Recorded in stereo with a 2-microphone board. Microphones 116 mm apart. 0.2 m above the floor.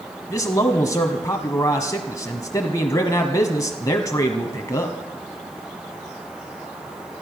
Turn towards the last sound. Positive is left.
turn(degrees=30)  # may be behind; listen again after turning